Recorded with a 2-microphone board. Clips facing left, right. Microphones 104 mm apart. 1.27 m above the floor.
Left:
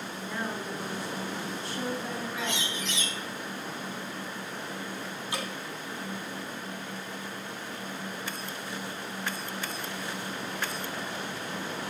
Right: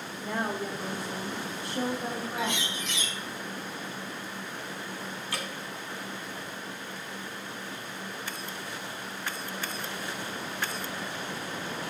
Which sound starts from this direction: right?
A woman speaking, at 0.2 s.